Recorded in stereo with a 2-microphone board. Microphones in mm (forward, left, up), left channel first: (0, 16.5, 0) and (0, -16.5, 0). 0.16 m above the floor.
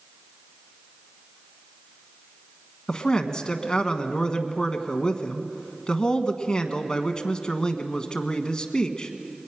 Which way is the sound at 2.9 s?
25° left (ahead or behind).